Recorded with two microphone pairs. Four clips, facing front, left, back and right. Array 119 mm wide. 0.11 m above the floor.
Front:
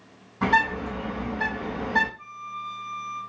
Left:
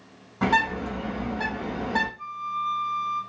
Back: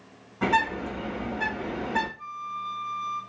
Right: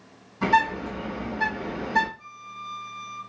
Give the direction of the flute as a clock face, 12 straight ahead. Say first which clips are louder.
Left 11 dB, back 2 dB; 9 o'clock.